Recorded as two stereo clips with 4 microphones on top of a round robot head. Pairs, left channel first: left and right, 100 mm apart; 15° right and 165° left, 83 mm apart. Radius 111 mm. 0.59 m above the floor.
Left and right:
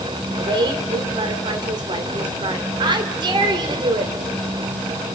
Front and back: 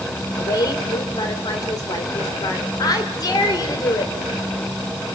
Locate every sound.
0.4 s a woman speaking: 50° right, 2.5 m